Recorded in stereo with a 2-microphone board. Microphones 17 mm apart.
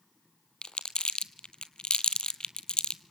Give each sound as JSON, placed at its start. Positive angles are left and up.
{"t": 0.6, "sound": "crumpling", "side_deg": 50, "distance_m": 0.9}